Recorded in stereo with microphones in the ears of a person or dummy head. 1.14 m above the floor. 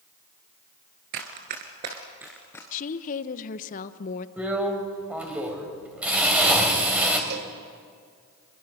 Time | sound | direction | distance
1.1 | running footsteps | 40° right (ahead or behind) | 1.4 m
2.7 | a woman speaking | 40° left (ahead or behind) | 0.8 m
4.4 | a drill | 5° right (ahead or behind) | 2.5 m
7.3 | a cowbell | 50° right (ahead or behind) | 1.0 m